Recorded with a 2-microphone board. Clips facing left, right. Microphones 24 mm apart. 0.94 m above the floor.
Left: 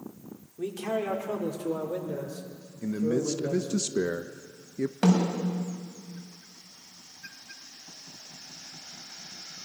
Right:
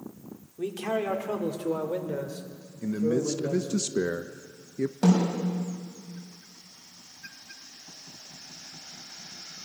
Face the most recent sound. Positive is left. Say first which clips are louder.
# right 1 dB
turn(degrees=50)  # may be behind; listen again after turning